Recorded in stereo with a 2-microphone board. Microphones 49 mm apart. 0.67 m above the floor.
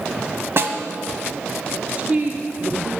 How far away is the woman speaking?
About 1.3 m.